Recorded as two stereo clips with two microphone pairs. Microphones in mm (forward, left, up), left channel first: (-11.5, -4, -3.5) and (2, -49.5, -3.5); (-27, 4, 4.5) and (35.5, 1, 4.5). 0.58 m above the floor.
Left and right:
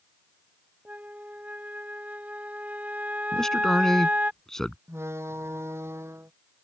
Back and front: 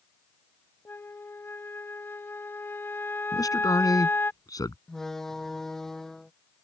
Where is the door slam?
100° right.